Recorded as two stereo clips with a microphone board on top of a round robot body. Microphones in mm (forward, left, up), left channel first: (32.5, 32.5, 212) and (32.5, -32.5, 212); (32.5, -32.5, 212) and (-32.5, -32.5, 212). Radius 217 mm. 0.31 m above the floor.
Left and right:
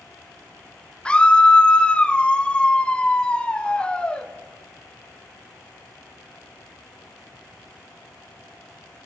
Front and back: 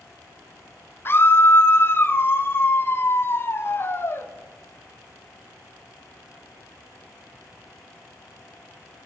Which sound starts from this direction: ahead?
A scream, at 1.1 s.